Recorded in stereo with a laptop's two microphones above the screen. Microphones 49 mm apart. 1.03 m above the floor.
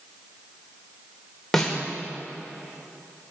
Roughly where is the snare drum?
Centre.